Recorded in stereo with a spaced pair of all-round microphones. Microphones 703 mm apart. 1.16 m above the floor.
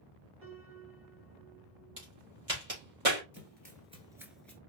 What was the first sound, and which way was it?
A piano, 15° right (ahead or behind).